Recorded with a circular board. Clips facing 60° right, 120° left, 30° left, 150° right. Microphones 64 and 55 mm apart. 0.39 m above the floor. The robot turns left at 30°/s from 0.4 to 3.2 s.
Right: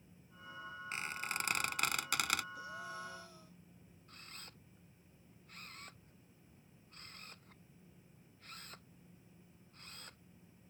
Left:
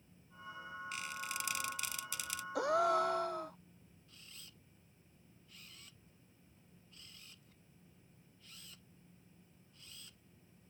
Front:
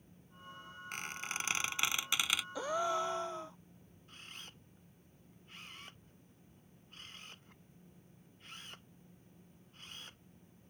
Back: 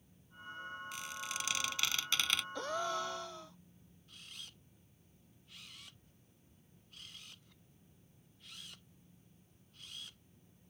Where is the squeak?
10° right; by 2.5 s 55° right.